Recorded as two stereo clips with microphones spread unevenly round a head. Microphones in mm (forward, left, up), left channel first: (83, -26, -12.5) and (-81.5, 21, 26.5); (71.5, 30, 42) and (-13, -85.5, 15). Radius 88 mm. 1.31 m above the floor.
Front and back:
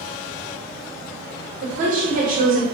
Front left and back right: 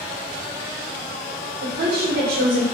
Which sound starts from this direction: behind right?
A woman speaking, at 1.6 s.